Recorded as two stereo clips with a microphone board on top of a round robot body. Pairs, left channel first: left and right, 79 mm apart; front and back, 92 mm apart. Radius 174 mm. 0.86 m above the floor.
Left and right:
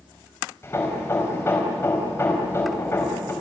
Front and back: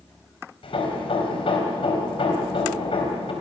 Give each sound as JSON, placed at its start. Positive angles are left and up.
{"t": 0.6, "sound": "hammering", "azimuth_deg": 30, "distance_m": 4.0}